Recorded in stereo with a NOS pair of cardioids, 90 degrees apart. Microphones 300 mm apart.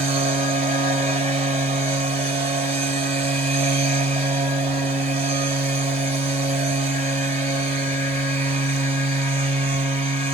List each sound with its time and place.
0.0 s a machine running: 20° right, 1.2 m